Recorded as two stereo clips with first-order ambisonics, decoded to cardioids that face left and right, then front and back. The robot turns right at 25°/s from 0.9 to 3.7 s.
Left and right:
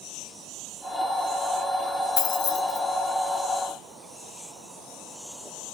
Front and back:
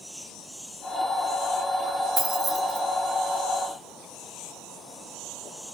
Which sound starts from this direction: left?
Keys jangling, at 2.2 s.